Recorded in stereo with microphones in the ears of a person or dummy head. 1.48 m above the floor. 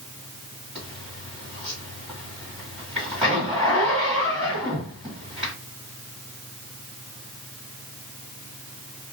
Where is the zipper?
5° right (ahead or behind), 1.6 m.